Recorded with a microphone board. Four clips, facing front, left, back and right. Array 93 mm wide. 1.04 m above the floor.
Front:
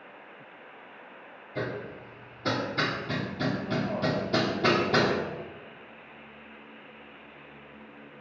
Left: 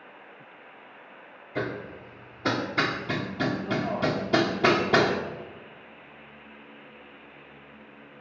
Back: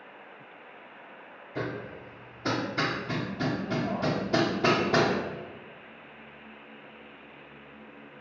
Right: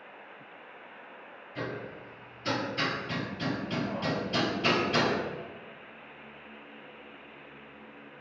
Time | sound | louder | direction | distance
1.6 | hammering | left 5 dB, front 1 dB | 100° left | 2 m